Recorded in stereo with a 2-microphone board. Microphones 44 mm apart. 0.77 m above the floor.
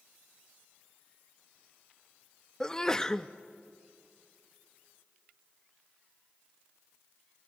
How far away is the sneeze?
About 0.5 m.